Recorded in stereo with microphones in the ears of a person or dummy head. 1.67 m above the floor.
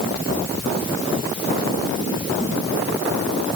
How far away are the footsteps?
I don't hear footsteps.